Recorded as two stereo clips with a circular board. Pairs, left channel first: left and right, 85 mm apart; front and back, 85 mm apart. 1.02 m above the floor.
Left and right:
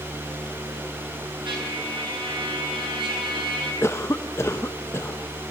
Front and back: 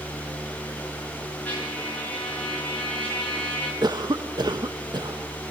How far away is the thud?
No thud in this recording.